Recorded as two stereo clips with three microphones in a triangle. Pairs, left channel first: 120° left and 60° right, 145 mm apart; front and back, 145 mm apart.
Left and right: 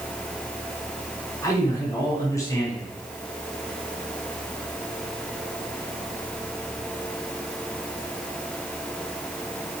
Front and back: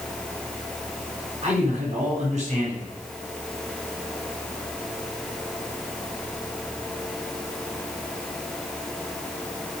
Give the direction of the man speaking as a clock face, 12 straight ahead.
6 o'clock.